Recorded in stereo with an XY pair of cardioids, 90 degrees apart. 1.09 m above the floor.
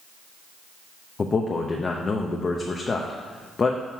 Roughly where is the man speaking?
Ahead left.